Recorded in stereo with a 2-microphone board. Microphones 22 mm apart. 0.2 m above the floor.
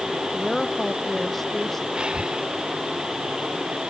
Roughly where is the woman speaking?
Centre.